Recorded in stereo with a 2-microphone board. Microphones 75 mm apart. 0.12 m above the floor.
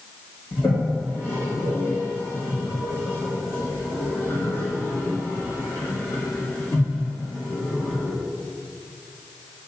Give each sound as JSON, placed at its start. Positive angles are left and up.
{"t": 0.5, "sound": "a toilet flushing", "side_deg": 30, "distance_m": 3.0}